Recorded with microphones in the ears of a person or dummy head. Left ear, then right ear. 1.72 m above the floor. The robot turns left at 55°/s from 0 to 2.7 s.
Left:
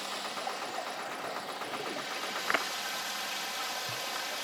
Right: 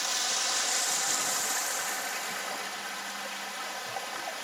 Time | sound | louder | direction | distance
0.0 | running water | right 6 dB | 25° right | ?